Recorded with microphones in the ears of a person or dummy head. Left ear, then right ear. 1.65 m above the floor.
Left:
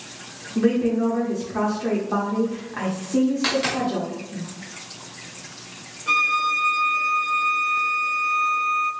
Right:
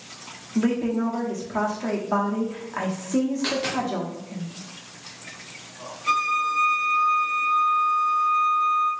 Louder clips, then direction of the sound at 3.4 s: Left 3 dB; 10° left (ahead or behind).